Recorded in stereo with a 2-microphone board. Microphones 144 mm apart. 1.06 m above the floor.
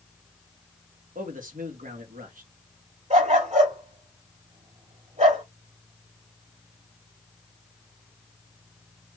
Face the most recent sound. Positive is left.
turn(degrees=-50)  # may be behind; listen again after turning